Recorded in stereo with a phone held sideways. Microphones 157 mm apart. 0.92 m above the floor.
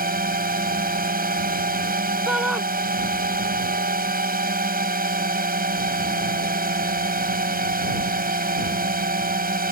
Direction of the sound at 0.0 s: 70° right (ahead or behind).